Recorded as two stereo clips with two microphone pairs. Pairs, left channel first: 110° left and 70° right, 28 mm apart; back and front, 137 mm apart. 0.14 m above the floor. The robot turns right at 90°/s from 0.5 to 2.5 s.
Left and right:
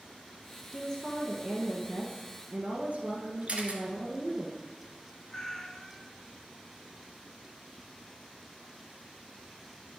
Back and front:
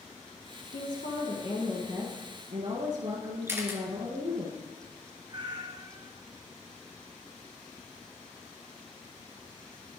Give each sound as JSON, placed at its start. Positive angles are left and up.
{"t": 0.7, "sound": "a woman speaking", "azimuth_deg": 160, "distance_m": 2.5}
{"t": 3.5, "sound": "a camera shutter", "azimuth_deg": -65, "distance_m": 1.5}
{"t": 5.3, "sound": "a cat meowing", "azimuth_deg": 40, "distance_m": 0.8}